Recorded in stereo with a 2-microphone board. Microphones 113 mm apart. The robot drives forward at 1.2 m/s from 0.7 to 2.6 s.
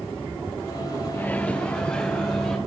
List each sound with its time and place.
1.1 s a microwave: 20° left (ahead or behind), 0.9 m; by 2.6 s 5° left (ahead or behind), 2.5 m